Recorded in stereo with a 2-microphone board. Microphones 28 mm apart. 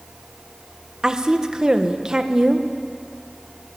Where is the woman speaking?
25° right (ahead or behind), 1.5 m.